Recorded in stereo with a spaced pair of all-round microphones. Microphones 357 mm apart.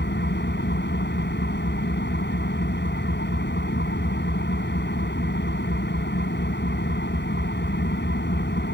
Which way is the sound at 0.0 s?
30° left (ahead or behind).